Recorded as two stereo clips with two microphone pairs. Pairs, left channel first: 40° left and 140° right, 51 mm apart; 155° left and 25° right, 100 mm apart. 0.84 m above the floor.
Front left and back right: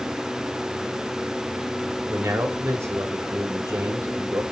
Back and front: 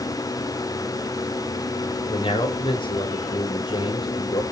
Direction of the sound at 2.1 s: 170° right.